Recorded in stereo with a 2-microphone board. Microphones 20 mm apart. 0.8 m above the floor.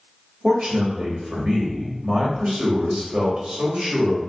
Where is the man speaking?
55° right (ahead or behind), 1.5 m.